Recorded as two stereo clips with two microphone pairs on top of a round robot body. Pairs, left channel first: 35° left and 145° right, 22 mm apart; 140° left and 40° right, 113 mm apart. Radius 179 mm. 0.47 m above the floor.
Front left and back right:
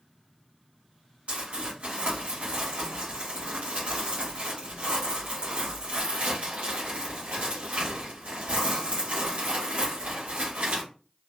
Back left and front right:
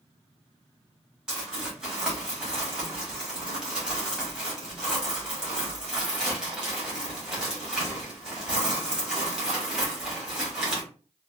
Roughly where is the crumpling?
Behind right.